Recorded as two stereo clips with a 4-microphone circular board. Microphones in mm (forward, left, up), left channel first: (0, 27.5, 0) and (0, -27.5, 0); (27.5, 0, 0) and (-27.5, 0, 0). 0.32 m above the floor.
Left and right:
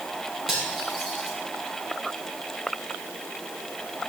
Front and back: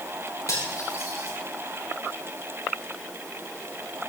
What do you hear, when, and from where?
0.5 s cutlery clinking: 5° right, 6.5 m